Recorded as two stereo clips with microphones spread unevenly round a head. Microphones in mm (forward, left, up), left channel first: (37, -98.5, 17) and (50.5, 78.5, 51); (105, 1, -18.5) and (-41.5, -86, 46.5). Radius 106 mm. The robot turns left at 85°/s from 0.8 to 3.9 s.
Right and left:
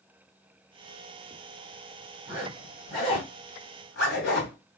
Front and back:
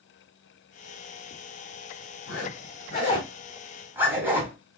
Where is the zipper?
30° left, 1.7 m; by 4.6 s 110° right, 1.7 m.